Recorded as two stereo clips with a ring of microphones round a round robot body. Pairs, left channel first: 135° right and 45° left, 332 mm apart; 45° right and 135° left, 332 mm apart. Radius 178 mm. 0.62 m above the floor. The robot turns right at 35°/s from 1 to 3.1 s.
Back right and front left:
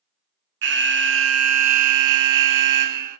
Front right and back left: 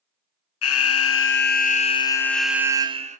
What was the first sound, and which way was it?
An alarm, 5° right.